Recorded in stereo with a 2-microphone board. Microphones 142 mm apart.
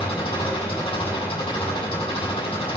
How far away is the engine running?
About 7 m.